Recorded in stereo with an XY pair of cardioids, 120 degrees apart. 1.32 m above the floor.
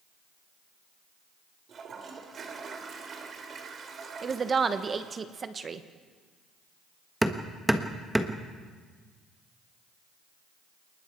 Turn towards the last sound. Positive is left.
turn(degrees=-5)